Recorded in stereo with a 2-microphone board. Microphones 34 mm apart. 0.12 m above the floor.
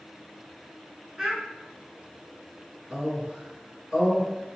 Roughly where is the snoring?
No snoring in this recording.